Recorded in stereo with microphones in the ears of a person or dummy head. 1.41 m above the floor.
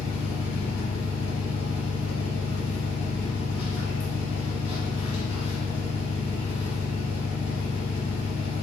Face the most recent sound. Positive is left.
turn(degrees=60)  # may be behind; listen again after turning